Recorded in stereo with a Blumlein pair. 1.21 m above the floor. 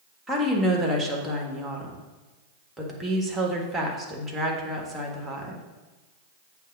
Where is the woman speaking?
5° right, 1.6 m.